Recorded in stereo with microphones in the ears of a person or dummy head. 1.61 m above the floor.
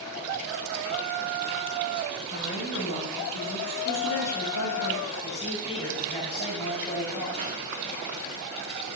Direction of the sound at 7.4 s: 30° right (ahead or behind).